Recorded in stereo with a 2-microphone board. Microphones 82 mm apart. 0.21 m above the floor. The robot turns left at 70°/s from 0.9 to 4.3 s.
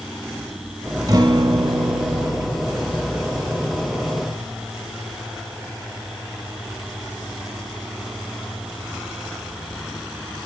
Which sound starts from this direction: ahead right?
A guitar, at 1.1 s.